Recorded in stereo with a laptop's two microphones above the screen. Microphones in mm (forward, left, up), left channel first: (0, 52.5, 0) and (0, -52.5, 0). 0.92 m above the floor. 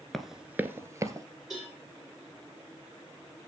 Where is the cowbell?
Centre (ahead or behind), 7.5 m.